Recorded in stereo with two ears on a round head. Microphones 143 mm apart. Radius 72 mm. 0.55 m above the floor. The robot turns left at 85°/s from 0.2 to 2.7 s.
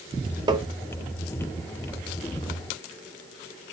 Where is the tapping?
25° right (ahead or behind), 0.6 m; by 0.7 s 30° right (ahead or behind), 0.6 m.